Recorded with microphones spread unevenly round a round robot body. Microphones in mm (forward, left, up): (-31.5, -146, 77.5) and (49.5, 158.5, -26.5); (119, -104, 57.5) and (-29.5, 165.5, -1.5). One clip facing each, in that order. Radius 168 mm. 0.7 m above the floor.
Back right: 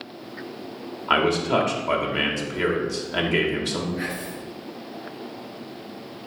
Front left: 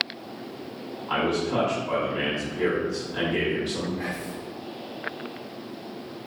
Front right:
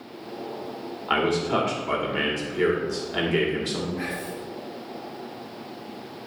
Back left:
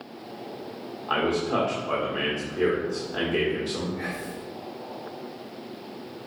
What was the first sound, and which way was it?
A man speaking, 115° right.